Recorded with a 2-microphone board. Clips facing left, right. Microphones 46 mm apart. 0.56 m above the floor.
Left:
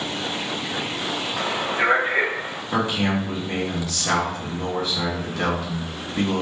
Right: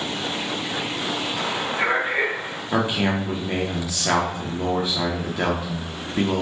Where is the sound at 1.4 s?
10° left (ahead or behind), 1.1 m.